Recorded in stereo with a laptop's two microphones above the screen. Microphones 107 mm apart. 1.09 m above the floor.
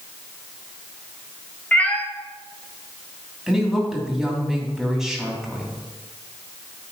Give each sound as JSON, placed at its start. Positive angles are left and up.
{"t": 1.7, "sound": "a cat meowing", "side_deg": 15, "distance_m": 1.1}
{"t": 3.5, "sound": "a woman speaking", "side_deg": -5, "distance_m": 3.0}